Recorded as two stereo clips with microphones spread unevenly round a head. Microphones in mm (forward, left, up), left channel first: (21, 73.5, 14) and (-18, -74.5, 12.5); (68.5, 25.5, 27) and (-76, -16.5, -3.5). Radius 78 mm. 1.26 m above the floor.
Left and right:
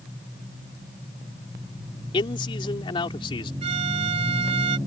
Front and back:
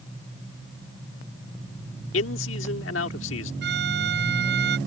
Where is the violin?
160° right.